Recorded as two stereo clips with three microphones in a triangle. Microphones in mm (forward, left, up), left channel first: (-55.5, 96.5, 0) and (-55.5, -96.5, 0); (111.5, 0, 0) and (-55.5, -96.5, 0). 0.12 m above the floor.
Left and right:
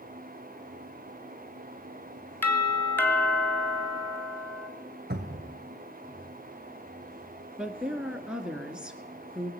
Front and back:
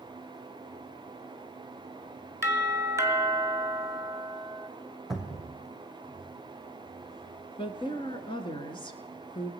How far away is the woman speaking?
About 1.3 m.